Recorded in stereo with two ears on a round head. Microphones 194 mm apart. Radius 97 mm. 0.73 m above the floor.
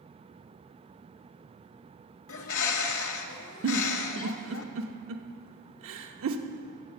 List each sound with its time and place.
2.3 s a bird: 65° left (ahead or behind), 0.9 m
3.6 s a giggle: 70° right (ahead or behind), 0.8 m